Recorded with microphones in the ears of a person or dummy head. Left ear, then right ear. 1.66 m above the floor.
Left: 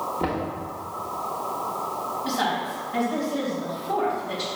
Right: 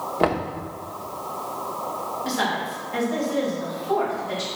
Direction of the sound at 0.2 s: 45° right (ahead or behind).